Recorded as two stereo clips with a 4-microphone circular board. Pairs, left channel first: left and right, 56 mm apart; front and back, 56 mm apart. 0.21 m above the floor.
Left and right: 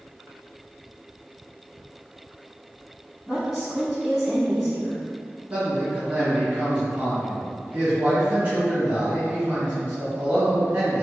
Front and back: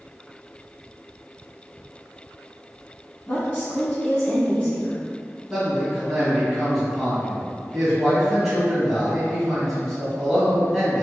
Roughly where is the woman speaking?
Ahead.